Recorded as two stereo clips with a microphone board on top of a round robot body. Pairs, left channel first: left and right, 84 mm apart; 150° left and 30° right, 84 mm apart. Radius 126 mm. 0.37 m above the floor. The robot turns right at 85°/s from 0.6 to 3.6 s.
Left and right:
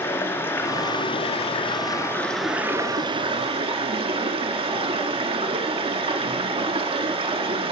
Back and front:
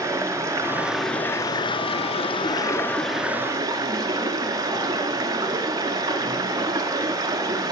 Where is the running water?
25° left, 1.3 m; by 7.7 s 80° right, 1.3 m.